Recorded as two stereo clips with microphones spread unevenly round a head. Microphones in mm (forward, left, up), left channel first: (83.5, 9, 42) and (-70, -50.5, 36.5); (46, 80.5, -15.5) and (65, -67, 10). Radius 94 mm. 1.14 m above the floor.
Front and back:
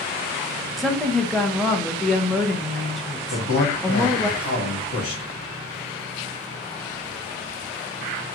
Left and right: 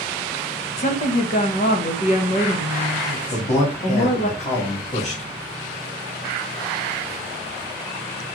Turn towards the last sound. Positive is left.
turn(degrees=55)